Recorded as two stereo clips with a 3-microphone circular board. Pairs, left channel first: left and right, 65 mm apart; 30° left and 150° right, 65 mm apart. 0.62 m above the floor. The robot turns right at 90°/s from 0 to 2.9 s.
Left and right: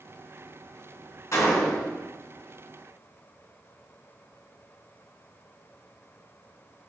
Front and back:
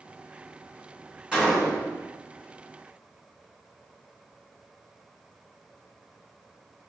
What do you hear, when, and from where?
1.3 s a gunshot: 130° left, 2 m; by 2.0 s 170° right, 2 m